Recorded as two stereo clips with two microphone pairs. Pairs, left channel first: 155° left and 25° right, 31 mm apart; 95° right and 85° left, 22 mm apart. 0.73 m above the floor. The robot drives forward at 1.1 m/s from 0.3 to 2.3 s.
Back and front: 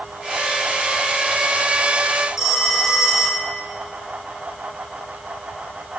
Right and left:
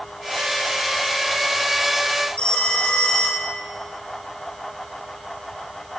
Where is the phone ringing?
100° right, 2 m.